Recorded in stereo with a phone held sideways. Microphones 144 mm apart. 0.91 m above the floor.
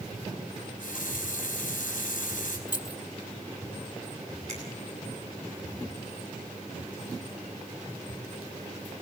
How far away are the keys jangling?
About 1.5 m.